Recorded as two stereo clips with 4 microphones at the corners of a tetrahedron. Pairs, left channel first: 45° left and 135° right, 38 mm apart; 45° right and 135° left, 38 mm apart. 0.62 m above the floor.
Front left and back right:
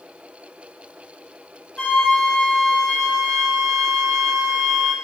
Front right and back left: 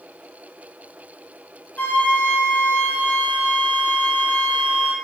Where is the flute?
20° right, 0.6 m.